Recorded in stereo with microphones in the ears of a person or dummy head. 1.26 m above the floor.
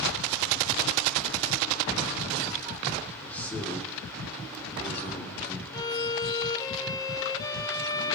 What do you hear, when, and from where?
3.2 s a man speaking: 10° left (ahead or behind), 2.5 m
5.7 s a violin: 20° left (ahead or behind), 1.2 m